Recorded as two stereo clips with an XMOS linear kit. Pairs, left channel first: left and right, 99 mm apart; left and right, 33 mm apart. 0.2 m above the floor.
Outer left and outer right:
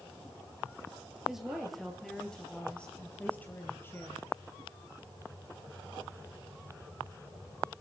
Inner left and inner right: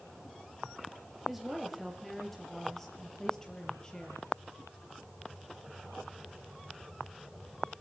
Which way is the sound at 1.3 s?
5° right (ahead or behind).